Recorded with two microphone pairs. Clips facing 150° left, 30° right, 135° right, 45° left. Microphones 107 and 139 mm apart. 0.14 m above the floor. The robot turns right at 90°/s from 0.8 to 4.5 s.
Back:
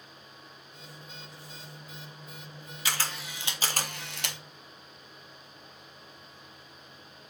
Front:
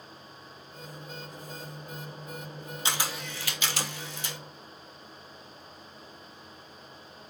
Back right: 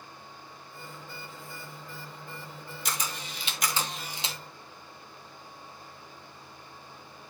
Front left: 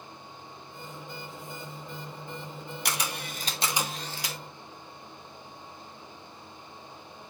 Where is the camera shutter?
35° left, 1.1 m; by 4.4 s 170° left, 1.1 m.